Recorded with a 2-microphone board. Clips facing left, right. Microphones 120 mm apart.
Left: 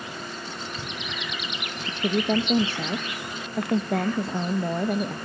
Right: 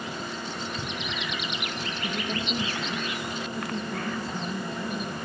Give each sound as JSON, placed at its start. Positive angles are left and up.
{"t": 1.9, "sound": "a woman speaking", "side_deg": 70, "distance_m": 0.6}